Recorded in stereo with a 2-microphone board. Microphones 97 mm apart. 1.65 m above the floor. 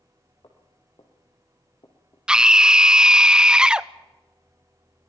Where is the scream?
10° right (ahead or behind), 0.5 m.